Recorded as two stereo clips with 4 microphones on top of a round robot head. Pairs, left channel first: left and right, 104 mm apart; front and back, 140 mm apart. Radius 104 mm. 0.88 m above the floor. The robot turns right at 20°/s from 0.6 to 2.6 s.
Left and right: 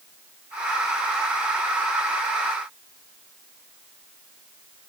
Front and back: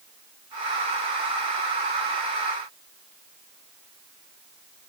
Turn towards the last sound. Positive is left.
No sound to turn to.